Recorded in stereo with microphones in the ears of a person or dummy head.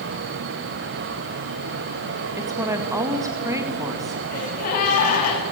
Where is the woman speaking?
15° right (ahead or behind), 2.5 m.